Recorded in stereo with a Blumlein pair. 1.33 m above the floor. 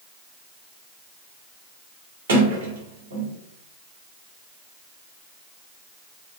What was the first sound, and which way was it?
A sliding door, 65° right.